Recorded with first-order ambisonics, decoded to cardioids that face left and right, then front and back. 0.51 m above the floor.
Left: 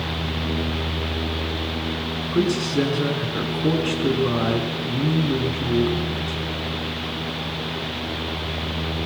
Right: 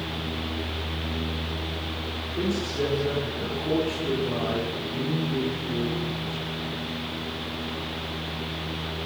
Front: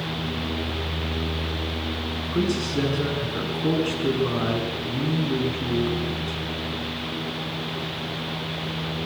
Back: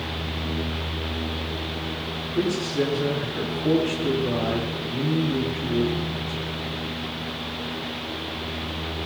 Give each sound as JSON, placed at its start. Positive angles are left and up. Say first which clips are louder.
{"t": 2.3, "sound": "a man speaking", "louder": "left 7 dB, back 1 dB", "azimuth_deg": 60, "distance_m": 6.0}